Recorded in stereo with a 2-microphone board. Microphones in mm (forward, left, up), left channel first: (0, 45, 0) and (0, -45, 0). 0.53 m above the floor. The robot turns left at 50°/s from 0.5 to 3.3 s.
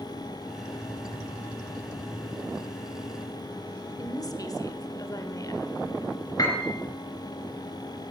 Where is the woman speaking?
45° left (ahead or behind), 1.5 m.